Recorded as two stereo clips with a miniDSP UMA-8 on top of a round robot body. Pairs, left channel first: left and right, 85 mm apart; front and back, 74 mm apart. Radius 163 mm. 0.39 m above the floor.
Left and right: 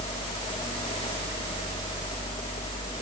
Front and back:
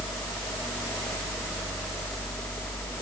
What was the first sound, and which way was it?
Only background noise.